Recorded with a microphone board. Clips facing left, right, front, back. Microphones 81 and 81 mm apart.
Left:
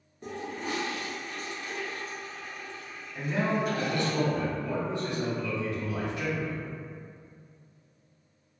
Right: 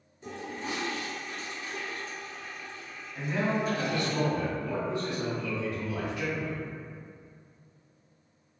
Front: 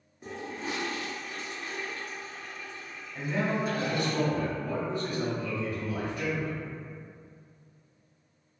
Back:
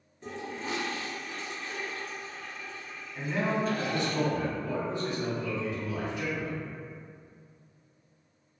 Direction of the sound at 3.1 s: 35° left.